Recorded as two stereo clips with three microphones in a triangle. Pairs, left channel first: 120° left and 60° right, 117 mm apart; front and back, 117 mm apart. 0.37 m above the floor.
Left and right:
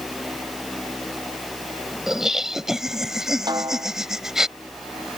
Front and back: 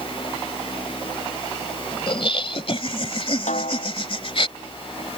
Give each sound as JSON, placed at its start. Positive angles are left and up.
{"t": 2.1, "sound": "laughter", "azimuth_deg": 25}
{"t": 3.5, "sound": "a snare drum", "azimuth_deg": -5}